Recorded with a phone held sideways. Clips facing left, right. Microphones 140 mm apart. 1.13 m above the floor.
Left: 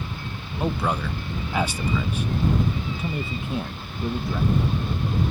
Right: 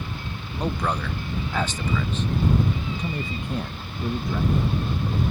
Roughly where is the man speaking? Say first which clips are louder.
Left 1 dB; centre.